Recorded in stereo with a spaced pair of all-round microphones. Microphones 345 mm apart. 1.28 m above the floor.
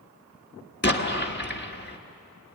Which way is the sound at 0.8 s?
30° left (ahead or behind).